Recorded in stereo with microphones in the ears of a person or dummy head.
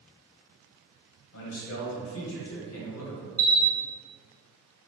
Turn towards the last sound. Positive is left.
turn(degrees=-10)  # may be behind; listen again after turning